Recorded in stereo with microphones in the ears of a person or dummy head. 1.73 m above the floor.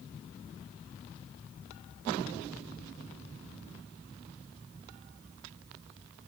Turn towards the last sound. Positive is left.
No sound to turn to.